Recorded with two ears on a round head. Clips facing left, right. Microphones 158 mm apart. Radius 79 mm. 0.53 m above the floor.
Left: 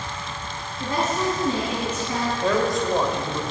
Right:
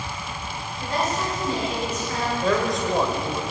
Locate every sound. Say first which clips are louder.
0.8 s a woman speaking: left 2 dB; 80° left, 4 m
2.4 s a man speaking: left 1 dB; centre (ahead or behind), 1.6 m